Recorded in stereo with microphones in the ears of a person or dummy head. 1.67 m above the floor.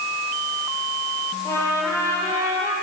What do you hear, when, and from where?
1.4 s a trumpet: 20° left (ahead or behind), 9.5 m